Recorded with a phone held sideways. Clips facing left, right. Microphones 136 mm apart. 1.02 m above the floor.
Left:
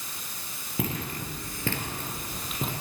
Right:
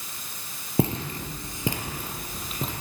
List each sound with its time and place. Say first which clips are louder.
0.8 s footsteps: right 6 dB; 30° right (ahead or behind), 1.3 m; by 2.7 s centre (ahead or behind), 2 m